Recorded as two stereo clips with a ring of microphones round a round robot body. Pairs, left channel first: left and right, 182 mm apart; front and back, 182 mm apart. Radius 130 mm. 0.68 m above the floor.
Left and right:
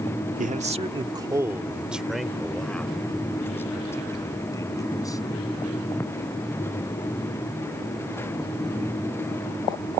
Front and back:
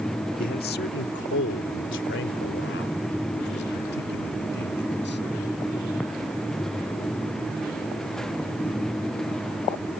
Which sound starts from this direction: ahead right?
A man speaking, at 0.4 s.